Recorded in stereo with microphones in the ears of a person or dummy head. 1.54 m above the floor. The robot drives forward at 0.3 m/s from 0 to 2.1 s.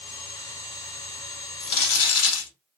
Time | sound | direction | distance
1.6 | crumpling | 70° left (ahead or behind) | 1.1 m